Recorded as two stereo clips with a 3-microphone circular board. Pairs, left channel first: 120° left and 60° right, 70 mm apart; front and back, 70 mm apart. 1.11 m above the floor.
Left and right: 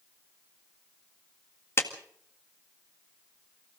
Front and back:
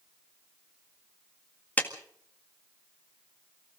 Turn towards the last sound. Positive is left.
turn(degrees=65)